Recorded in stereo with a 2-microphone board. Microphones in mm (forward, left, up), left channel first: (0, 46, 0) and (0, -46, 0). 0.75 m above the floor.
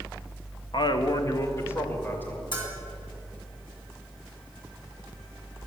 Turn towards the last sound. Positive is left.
turn(degrees=55)  # may be behind; listen again after turning